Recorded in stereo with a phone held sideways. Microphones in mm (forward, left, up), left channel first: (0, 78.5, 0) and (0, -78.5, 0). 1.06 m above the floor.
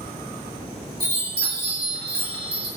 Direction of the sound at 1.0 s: 75° right (ahead or behind).